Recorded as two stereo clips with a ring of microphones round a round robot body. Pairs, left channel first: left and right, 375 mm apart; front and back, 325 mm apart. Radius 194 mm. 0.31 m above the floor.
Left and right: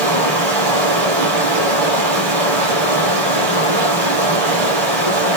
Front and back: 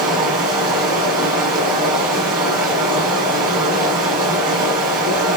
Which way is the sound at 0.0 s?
110° right.